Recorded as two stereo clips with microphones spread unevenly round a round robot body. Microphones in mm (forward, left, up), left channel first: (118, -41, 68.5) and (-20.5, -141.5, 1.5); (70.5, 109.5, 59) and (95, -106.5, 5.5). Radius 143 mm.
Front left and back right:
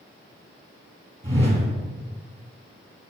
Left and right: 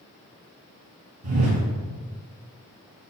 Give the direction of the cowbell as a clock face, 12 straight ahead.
I don't hear a cowbell.